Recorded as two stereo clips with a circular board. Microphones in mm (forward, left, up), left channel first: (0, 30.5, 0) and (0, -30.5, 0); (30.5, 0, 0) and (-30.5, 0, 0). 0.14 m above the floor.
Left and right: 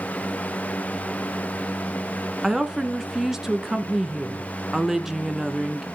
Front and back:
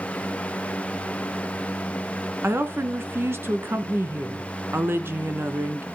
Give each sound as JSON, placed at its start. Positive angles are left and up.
{"t": 2.4, "sound": "a woman speaking", "azimuth_deg": -170, "distance_m": 1.3}